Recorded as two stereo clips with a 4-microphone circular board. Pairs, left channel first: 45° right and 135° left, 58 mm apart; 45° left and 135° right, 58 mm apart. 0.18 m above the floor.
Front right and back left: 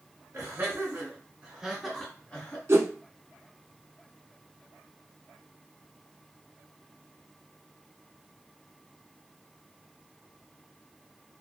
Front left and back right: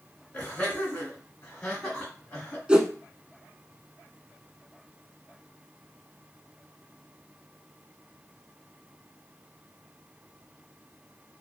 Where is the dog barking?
I don't hear a dog barking.